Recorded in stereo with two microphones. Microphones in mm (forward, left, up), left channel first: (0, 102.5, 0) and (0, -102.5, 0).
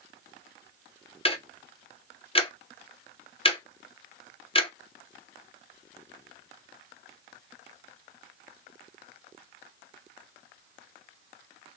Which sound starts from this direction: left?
Ticking, at 1.2 s.